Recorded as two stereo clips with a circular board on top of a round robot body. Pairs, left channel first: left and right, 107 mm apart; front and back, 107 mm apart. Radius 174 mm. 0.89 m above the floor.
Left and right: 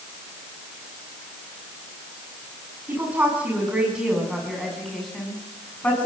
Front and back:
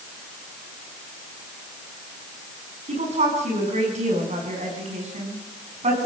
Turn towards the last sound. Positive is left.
turn(degrees=165)